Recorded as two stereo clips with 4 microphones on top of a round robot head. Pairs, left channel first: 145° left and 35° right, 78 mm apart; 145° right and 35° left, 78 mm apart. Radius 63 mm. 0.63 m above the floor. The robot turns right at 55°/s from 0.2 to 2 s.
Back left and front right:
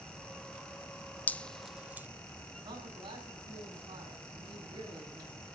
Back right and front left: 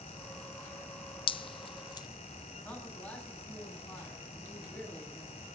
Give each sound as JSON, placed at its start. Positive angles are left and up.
{"t": 1.3, "sound": "dripping", "azimuth_deg": -145, "distance_m": 0.7}
{"t": 2.6, "sound": "a man speaking", "azimuth_deg": -70, "distance_m": 6.0}